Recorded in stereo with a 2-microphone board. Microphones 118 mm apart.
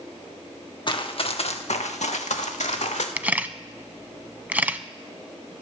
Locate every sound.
0.9 s running footsteps: 40° left (ahead or behind), 1.5 m; by 3.1 s 75° left (ahead or behind), 2 m
3.2 s a camera shutter: 15° right (ahead or behind), 0.5 m